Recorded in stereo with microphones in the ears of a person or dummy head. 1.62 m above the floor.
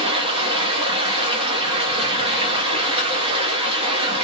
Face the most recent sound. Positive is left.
turn(degrees=-30)  # may be behind; listen again after turning